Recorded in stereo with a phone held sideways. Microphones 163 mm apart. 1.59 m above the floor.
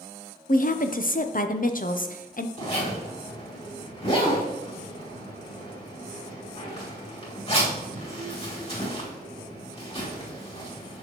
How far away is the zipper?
About 2.5 m.